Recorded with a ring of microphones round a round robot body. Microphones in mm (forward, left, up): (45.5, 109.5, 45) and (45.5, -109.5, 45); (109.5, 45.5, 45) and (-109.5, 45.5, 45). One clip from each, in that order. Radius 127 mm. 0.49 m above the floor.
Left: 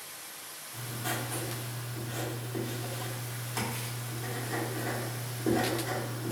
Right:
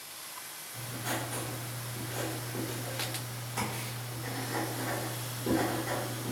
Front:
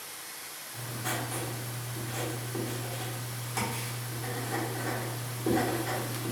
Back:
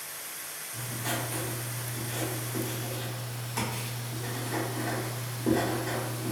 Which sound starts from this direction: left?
Writing, at 0.7 s.